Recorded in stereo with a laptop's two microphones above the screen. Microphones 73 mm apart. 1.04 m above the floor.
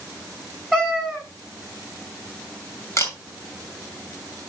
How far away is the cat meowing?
About 3 m.